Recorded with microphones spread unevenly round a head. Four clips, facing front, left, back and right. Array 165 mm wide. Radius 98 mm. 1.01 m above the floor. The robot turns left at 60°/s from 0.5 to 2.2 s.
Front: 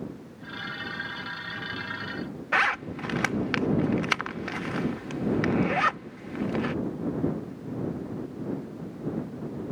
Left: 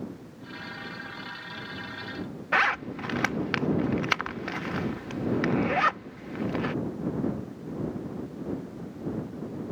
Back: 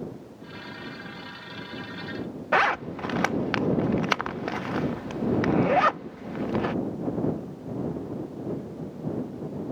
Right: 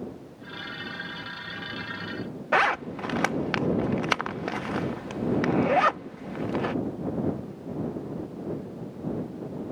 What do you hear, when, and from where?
2.5 s a zipper: 140° right